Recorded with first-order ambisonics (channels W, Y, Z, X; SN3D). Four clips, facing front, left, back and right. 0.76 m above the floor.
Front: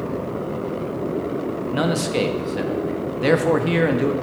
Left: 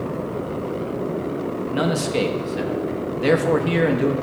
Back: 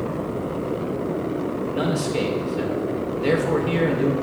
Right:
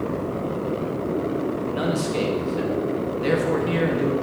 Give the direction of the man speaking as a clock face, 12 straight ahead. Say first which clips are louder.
Left 5 dB, front 4 dB; 11 o'clock.